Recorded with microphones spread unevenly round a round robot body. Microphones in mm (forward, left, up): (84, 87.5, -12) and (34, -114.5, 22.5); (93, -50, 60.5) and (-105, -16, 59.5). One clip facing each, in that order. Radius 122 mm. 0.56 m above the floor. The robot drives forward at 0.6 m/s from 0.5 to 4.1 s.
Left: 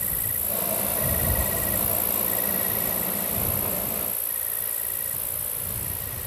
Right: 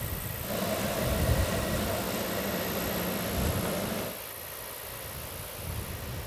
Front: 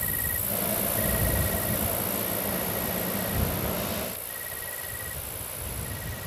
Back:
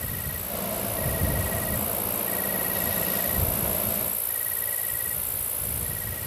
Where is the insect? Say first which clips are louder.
Even, even; 70° left; by 6.3 s 120° left.